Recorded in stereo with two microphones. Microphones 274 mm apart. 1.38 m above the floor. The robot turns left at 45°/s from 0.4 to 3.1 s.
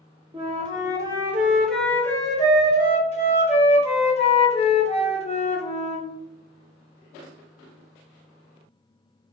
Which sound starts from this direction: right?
A flute, at 0.3 s.